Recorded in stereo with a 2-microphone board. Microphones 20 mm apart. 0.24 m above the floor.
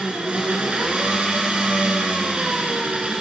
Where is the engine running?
75° right (ahead or behind), 1.1 m.